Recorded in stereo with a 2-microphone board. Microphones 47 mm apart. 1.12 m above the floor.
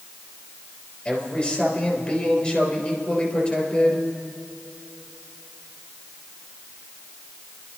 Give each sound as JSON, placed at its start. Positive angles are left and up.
{"t": 1.1, "sound": "a man speaking", "side_deg": 30, "distance_m": 3.5}